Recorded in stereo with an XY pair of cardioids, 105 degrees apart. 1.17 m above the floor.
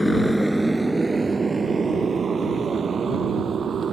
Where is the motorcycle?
5° left; by 3.9 s 45° right.